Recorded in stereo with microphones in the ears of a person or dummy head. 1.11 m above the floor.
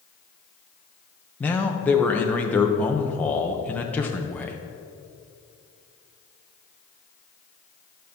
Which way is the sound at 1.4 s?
15° left (ahead or behind).